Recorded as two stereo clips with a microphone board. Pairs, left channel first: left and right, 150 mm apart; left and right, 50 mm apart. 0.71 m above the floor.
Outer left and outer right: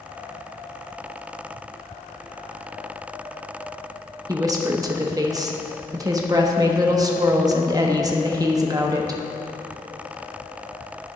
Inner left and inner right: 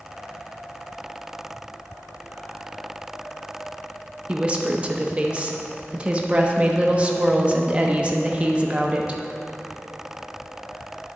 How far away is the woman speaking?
About 0.6 m.